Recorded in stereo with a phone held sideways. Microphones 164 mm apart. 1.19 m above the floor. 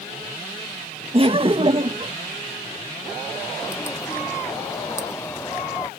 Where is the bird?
15° left (ahead or behind).